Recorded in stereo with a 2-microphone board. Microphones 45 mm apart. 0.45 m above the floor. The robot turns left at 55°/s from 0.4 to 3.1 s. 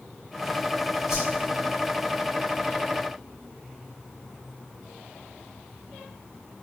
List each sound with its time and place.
1.1 s a whoosh: 10° right (ahead or behind), 0.9 m; by 1.3 s centre (ahead or behind), 0.9 m